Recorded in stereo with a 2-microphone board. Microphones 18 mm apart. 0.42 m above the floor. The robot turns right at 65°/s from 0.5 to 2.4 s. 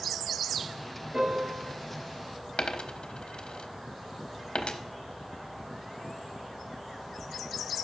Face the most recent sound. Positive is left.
turn(degrees=75)  # may be behind; listen again after turning